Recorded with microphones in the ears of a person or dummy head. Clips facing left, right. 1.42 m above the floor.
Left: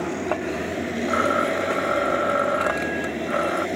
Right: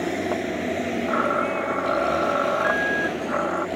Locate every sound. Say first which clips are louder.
1.1 s a blender: left 4 dB; 25° left (ahead or behind)